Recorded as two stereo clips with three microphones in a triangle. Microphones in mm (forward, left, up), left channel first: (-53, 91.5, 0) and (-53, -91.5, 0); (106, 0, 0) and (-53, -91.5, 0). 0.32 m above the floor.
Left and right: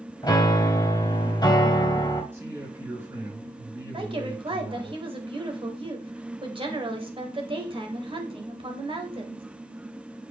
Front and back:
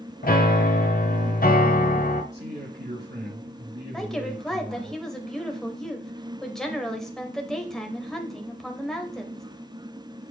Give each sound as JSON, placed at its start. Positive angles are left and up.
{"t": 0.2, "sound": "a piano", "azimuth_deg": 30, "distance_m": 1.0}
{"t": 2.3, "sound": "a man speaking", "azimuth_deg": -165, "distance_m": 5.0}
{"t": 3.9, "sound": "a woman speaking", "azimuth_deg": -55, "distance_m": 1.1}